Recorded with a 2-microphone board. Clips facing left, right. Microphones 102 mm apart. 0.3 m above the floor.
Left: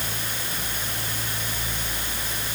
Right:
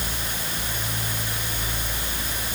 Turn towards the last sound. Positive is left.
No sound to turn to.